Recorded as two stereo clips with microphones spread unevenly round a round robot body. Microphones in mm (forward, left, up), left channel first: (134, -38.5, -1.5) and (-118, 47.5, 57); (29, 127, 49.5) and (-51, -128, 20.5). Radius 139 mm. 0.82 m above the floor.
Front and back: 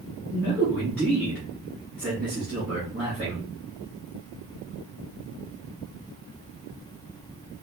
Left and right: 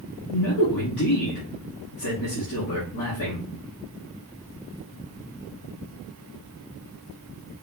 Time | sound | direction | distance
0.3 | a man speaking | 60° left | 2 m